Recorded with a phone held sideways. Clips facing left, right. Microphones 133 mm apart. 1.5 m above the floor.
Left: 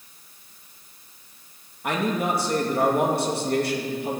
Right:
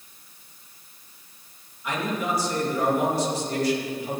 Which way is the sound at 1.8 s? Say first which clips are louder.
Left 3 dB; 60° left (ahead or behind).